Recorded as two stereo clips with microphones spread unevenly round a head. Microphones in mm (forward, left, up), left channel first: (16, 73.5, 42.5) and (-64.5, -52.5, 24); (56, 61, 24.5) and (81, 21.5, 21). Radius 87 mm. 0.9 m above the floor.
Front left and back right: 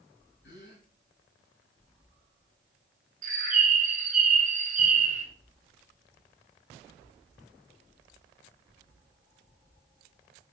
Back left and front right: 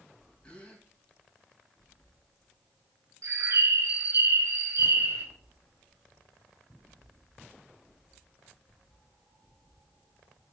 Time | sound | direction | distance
0.4 | a gasp | 55° left | 4.5 m
3.2 | a bird | 80° right | 1.8 m